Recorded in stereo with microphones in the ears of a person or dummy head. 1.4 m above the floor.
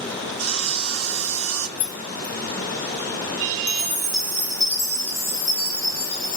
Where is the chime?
55° left (ahead or behind), 1.1 m.